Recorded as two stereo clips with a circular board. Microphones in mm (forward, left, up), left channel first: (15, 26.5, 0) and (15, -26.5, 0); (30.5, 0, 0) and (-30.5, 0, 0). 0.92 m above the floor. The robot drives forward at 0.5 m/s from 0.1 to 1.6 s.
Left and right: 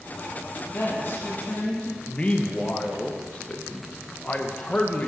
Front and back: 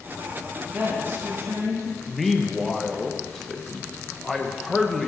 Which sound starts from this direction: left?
A man speaking, at 2.1 s.